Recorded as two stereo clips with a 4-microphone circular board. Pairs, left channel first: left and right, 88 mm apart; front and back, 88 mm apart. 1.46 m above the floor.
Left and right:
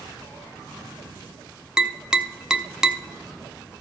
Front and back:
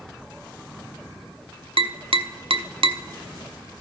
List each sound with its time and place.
1.8 s tapping: 170° right, 0.5 m